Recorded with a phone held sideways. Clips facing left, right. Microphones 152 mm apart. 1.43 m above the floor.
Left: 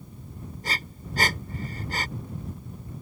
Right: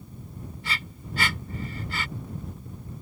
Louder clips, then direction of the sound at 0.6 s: Left 2 dB; 40° left (ahead or behind).